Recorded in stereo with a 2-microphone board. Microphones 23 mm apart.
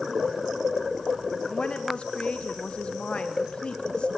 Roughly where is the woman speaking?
Left.